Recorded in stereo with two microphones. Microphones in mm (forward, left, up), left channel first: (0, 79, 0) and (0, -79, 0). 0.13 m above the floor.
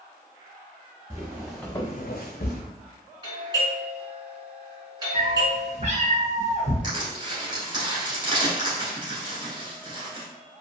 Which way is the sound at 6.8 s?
25° right (ahead or behind).